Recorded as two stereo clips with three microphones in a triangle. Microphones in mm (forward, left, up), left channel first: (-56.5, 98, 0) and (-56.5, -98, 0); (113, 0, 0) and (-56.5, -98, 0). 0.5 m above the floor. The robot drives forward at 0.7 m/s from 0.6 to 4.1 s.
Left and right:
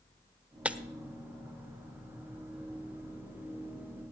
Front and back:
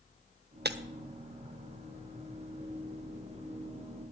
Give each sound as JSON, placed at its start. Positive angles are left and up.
{"t": 0.7, "sound": "breaking glass", "azimuth_deg": -175, "distance_m": 0.7}